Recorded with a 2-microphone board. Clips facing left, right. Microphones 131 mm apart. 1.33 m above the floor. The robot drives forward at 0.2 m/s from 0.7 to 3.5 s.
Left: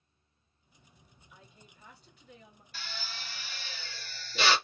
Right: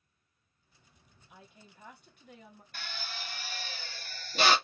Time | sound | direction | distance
1.3 | a woman speaking | 60° right (ahead or behind) | 1.4 m
2.7 | a drill | 60° right (ahead or behind) | 0.9 m